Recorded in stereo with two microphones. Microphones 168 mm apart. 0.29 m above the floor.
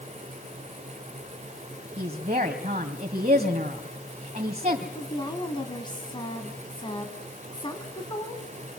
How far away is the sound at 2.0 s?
About 2.5 m.